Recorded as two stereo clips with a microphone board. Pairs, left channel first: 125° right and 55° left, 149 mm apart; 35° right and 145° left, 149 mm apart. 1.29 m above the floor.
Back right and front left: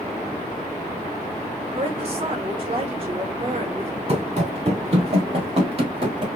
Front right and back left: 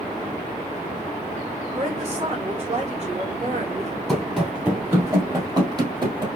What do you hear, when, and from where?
1.8 s a woman speaking: 105° left, 1.9 m
4.1 s running footsteps: 55° left, 1.6 m; by 6.3 s 95° left, 2 m